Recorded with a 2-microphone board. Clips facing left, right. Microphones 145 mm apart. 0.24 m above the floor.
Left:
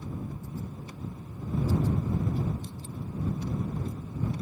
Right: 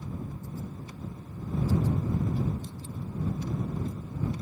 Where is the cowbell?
I don't hear a cowbell.